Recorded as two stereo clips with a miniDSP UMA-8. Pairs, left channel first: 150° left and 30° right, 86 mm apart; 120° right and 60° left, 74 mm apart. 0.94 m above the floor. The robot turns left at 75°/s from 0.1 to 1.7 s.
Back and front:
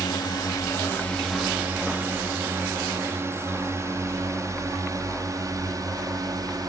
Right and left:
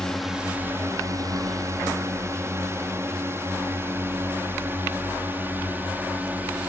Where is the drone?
160° left; by 6.7 s straight ahead.